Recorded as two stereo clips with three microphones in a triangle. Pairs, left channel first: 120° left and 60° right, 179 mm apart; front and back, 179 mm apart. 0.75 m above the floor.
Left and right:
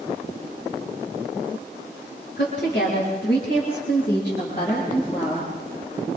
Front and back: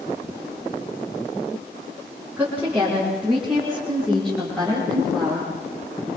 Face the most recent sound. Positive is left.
turn(degrees=80)